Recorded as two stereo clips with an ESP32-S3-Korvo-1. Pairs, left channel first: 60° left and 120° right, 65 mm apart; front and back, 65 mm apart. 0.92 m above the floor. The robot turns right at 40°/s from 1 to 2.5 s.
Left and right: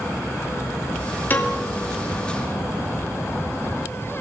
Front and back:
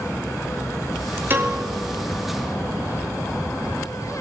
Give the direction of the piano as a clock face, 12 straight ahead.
8 o'clock.